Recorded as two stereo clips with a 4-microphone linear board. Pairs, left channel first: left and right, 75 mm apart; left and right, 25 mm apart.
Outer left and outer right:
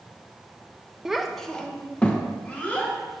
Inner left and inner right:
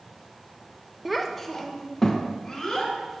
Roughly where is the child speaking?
Centre.